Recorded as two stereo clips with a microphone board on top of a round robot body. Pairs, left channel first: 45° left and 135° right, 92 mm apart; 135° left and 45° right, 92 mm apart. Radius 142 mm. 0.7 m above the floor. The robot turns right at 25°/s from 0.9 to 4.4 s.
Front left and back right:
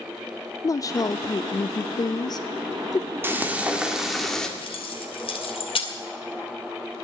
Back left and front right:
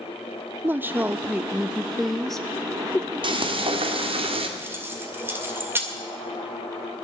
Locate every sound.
0.6 s a woman speaking: 15° left, 0.5 m; by 3.1 s 70° left, 0.5 m
3.2 s frying: 70° right, 1.9 m; by 4.5 s 40° right, 1.9 m
4.6 s keys jangling: 20° left, 2 m